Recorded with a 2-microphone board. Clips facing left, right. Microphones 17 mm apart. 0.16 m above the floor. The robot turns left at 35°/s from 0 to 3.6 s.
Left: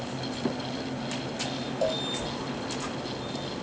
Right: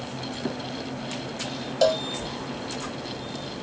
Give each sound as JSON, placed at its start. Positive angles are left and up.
{"t": 1.8, "sound": "a cowbell", "side_deg": -60}